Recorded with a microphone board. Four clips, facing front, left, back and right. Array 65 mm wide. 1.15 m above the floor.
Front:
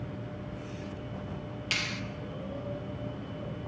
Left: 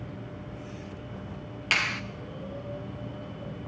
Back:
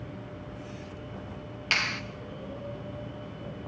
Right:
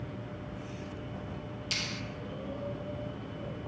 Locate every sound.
1.7 s a clap: 125° left, 1.1 m